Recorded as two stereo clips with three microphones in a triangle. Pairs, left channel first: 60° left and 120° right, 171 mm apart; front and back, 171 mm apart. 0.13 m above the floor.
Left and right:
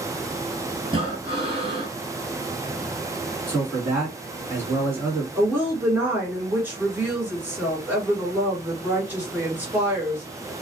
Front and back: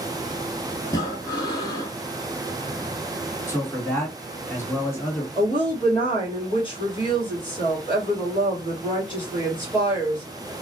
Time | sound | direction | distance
0.8 | breathing | 65° right | 1.4 m
3.5 | a man speaking | 60° right | 1.7 m
5.3 | a woman speaking | 45° right | 1.8 m